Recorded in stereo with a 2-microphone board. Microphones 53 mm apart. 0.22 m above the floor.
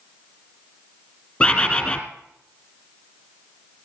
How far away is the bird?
About 1.7 m.